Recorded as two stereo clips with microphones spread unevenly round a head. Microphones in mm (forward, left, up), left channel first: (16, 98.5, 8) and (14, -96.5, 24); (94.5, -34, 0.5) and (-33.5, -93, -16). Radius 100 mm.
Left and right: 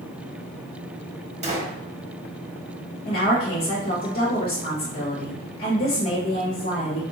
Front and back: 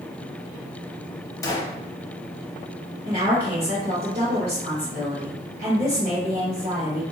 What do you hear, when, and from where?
1.4 s a gunshot: 40° right, 0.9 m
3.0 s a woman speaking: 150° left, 1.0 m